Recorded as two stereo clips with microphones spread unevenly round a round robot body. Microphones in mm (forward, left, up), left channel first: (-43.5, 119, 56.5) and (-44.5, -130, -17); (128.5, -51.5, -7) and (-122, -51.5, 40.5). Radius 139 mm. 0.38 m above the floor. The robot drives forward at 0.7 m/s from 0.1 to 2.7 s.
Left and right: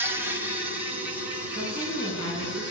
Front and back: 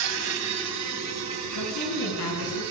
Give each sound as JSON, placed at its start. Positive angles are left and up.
{"t": 0.0, "sound": "an insect", "azimuth_deg": -165, "distance_m": 2.5}
{"t": 1.5, "sound": "a woman speaking", "azimuth_deg": 10, "distance_m": 6.0}